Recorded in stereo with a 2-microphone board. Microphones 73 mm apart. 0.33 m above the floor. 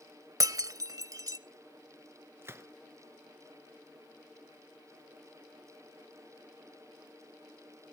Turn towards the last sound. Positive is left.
turn(degrees=-35)  # may be behind; listen again after turning